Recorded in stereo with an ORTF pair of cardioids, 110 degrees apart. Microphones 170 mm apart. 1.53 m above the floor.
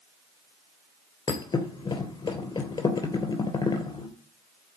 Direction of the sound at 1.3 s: 25° left.